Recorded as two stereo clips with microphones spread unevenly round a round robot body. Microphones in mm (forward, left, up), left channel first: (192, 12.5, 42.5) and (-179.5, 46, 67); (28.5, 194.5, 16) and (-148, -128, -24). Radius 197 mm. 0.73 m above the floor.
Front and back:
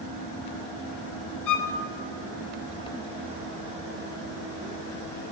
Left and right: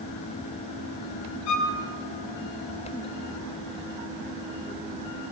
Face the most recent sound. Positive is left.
turn(degrees=35)